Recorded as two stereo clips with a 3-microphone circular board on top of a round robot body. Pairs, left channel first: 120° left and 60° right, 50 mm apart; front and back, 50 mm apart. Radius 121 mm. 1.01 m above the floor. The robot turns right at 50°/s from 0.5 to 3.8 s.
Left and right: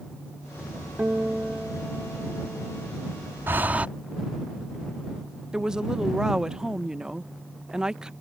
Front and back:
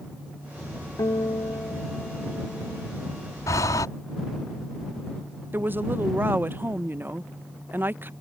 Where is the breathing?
15° right; by 3.9 s 5° left.